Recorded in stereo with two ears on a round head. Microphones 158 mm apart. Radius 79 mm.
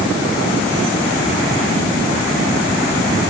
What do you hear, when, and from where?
Only background noise.